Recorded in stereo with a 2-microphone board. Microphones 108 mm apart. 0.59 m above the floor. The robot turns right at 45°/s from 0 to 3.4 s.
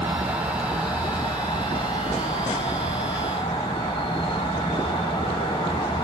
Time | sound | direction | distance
0.0 | an insect | 20° right | 1.1 m